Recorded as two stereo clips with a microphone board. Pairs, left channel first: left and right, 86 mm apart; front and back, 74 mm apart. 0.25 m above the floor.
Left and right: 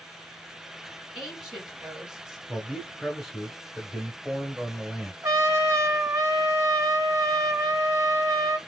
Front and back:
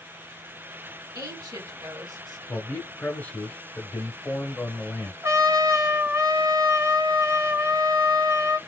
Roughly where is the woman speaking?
Behind.